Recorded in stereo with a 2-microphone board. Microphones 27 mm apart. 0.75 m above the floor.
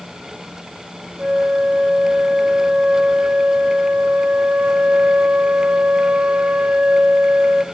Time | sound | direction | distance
1.2 | a flute | 50° right (ahead or behind) | 0.6 m